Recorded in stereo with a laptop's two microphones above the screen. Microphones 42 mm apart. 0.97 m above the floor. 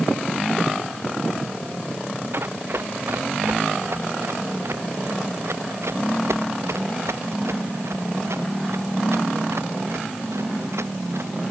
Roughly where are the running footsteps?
Right.